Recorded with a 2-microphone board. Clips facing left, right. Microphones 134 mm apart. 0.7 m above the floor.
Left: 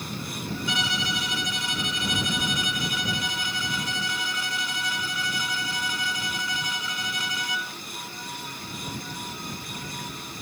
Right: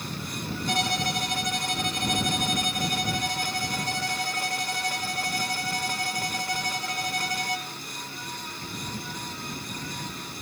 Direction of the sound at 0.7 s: 60° right (ahead or behind).